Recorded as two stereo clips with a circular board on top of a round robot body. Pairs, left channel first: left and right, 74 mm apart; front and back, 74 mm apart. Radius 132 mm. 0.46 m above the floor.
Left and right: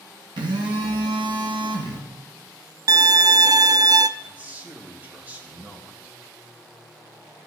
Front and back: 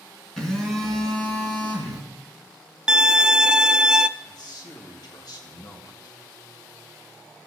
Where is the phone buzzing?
80° right, 2.5 m.